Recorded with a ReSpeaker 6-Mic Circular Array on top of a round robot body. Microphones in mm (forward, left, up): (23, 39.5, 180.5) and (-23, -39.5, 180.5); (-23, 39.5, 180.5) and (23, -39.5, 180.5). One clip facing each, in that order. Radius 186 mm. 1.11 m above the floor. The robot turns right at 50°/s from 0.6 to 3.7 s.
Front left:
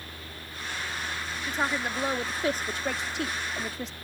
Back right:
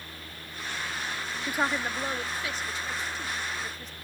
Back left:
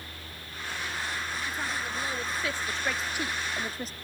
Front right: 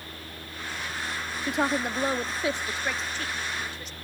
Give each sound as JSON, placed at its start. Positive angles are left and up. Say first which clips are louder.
{"t": 1.5, "sound": "a woman speaking", "louder": "back right 1 dB, front right 7 dB", "azimuth_deg": -45}